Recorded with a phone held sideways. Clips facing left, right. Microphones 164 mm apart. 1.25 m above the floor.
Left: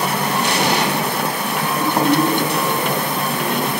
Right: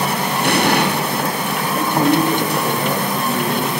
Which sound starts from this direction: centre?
A man speaking, at 1.8 s.